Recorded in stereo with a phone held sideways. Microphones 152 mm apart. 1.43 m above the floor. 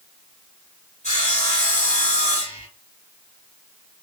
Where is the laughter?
No laughter in this recording.